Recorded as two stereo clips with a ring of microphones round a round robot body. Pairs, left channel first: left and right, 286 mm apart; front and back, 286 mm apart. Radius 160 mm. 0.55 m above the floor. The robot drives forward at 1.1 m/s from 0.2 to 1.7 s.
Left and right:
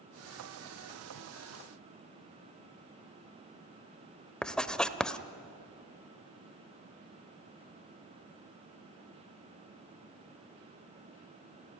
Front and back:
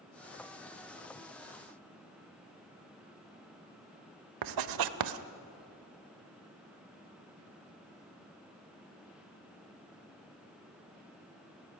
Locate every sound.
4.4 s writing: 175° left, 1.0 m